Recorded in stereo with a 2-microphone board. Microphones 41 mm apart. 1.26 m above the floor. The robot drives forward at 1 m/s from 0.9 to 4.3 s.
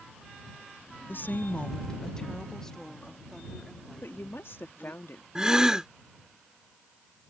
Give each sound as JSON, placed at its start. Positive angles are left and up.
{"t": 1.1, "sound": "a woman speaking", "side_deg": 60}
{"t": 4.0, "sound": "a woman speaking", "side_deg": 75}
{"t": 5.3, "sound": "a gasp", "side_deg": -20}